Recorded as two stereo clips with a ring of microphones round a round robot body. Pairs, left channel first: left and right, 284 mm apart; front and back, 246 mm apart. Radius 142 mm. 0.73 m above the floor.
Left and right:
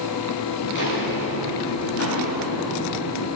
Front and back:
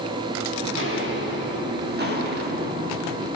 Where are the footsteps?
145° left, 6 m; by 3.3 s 125° left, 8.5 m.